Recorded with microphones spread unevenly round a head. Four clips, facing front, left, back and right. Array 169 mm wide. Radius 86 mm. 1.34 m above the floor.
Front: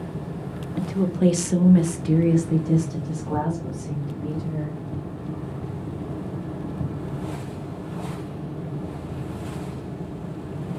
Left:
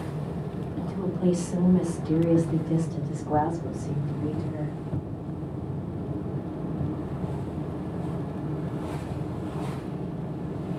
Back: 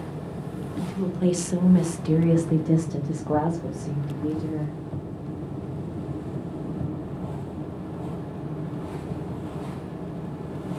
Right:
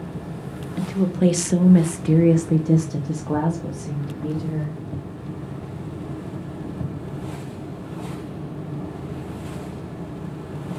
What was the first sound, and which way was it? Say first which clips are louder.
A woman speaking: right 9 dB, front 5 dB; 45° right.